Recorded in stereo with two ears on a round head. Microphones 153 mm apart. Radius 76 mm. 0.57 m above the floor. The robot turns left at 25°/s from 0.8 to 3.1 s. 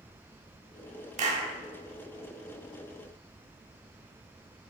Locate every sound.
1.2 s a clap: 45° right (ahead or behind), 1.3 m; by 1.5 s 40° right (ahead or behind), 1.3 m